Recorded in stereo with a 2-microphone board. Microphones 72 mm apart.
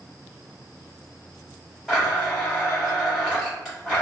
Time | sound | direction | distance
1.9 | a blender | 5° right (ahead or behind) | 1.7 m